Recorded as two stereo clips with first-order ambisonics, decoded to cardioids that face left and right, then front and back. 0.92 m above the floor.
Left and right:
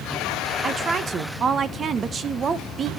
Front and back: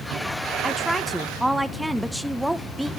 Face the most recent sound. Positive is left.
turn(degrees=-100)